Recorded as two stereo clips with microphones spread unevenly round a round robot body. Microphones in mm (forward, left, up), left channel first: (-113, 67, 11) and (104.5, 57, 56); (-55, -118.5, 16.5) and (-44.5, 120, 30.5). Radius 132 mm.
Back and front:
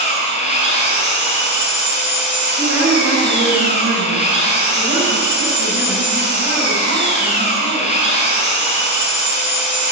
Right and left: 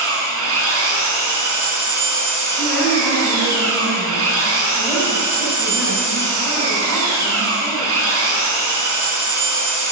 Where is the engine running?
115° left, 4.5 m.